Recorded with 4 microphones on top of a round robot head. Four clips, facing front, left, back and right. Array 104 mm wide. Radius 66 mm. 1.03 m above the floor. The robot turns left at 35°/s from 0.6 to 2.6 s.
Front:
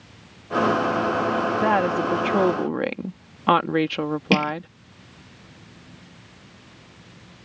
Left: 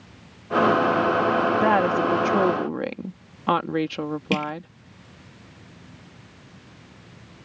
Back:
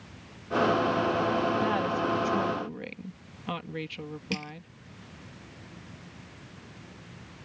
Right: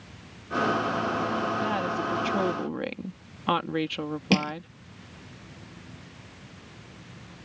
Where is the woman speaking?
55° left; by 4.7 s 20° left.